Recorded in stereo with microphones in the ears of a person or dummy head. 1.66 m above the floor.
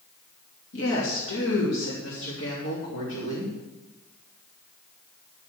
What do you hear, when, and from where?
0.7 s a woman speaking: 85° left, 3 m; by 3.5 s 60° left (ahead or behind), 4 m